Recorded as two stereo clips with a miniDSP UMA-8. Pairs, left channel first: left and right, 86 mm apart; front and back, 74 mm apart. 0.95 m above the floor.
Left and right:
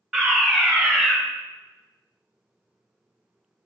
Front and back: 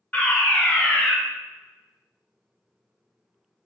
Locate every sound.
0.1 s a fire alarm: 10° right, 1.2 m